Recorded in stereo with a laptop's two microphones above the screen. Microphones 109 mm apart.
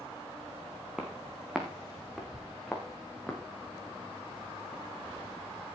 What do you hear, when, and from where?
1.0 s footsteps: 5° right (ahead or behind), 3.5 m; by 3.4 s centre (ahead or behind), 5 m